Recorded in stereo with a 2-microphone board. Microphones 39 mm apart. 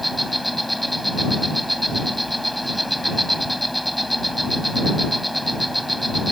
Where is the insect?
Centre (ahead or behind).